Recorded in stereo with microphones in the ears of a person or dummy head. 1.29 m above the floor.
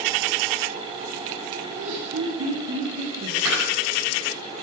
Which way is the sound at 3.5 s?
10° right (ahead or behind).